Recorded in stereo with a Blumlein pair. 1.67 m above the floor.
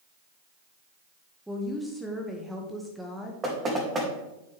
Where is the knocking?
20° right, 2.5 m.